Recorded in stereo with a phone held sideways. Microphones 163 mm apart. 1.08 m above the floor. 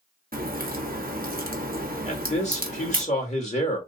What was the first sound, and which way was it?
A crack, 65° right (ahead or behind).